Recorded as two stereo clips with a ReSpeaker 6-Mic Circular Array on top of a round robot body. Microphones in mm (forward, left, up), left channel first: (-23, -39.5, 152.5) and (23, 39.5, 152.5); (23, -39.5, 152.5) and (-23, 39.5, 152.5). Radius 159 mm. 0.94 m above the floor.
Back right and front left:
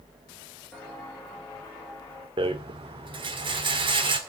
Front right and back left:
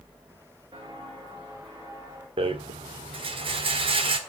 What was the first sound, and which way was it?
Footsteps, 160° left.